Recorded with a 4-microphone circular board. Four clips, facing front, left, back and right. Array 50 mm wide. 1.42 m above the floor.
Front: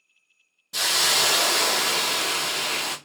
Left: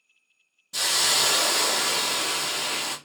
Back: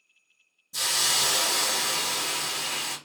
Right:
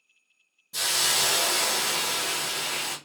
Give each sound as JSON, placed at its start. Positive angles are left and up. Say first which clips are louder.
{"t": 0.7, "sound": "a hiss", "louder": "left 2 dB, front 5 dB", "azimuth_deg": 20, "distance_m": 0.7}